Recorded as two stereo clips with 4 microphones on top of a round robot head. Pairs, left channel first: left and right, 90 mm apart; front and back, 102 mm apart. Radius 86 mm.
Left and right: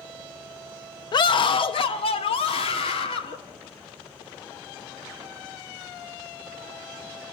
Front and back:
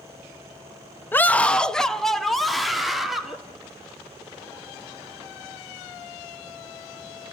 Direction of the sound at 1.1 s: 70° left.